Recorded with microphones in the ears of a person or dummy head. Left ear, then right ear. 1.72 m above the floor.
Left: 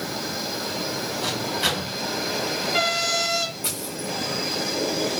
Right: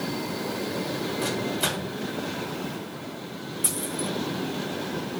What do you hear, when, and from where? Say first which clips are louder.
1.2 s a microwave: left 4 dB; 15° right (ahead or behind), 6 m
3.6 s a dropped coin: even; 5° right (ahead or behind), 4 m